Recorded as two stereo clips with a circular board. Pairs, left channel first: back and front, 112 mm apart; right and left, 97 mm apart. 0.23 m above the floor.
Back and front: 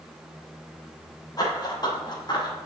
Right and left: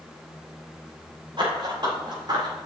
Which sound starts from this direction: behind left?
Running footsteps, at 1.4 s.